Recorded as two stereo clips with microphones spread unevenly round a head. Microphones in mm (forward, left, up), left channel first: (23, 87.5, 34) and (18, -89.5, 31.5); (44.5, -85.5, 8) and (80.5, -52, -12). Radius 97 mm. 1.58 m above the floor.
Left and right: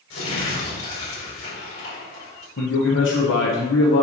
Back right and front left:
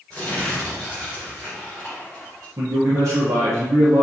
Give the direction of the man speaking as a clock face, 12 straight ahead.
10 o'clock.